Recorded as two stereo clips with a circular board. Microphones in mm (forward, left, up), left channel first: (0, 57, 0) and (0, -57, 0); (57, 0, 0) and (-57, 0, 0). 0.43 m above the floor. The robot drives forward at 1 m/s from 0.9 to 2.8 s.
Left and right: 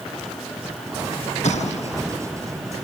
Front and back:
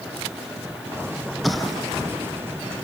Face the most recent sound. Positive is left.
turn(degrees=95)